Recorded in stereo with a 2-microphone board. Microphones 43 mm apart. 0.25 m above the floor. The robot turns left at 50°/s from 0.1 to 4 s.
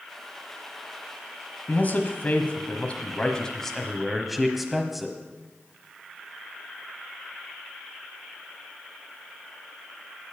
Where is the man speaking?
115° left, 1.2 m; by 5.2 s straight ahead, 1.2 m.